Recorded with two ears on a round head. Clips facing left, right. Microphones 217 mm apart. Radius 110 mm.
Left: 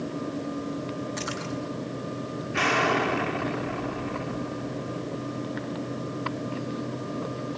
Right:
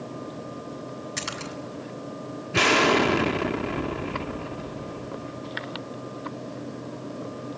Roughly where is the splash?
Right.